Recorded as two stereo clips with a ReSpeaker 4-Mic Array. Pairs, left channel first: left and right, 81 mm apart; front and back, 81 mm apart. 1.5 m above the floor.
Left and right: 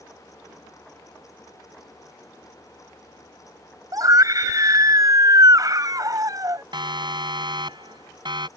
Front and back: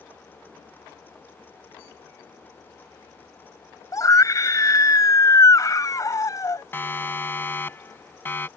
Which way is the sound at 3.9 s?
45° right.